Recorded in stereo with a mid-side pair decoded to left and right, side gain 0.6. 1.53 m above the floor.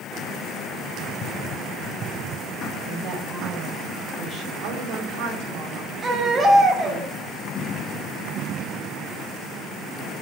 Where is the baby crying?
20° right, 7.5 m.